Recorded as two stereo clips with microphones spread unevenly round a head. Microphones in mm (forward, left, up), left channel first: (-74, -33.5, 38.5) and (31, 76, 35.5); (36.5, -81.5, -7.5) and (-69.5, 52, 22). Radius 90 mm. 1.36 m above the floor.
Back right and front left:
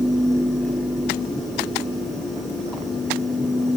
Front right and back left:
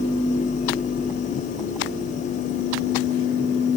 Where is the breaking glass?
No breaking glass in this recording.